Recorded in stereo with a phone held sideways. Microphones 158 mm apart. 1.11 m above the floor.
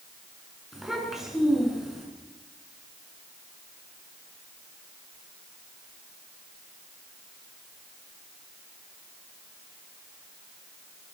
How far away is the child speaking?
About 8 m.